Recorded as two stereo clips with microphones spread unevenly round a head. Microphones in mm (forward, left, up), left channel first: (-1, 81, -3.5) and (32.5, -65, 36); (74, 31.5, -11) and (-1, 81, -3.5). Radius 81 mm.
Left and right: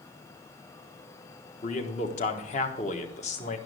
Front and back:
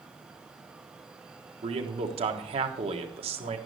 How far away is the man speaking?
About 1.2 m.